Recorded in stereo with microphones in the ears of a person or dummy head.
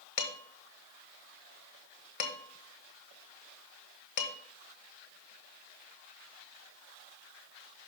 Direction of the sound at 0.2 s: 55° left (ahead or behind).